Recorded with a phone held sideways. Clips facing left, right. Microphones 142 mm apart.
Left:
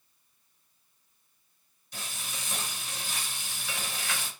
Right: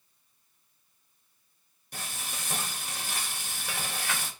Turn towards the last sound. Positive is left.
turn(degrees=-50)  # may be behind; listen again after turning